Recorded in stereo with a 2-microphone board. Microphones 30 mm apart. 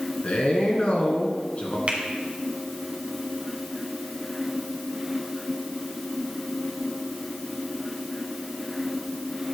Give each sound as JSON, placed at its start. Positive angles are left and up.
{"t": 0.2, "sound": "a man speaking", "side_deg": 45, "distance_m": 2.5}
{"t": 1.9, "sound": "a finger snap", "side_deg": -50, "distance_m": 1.8}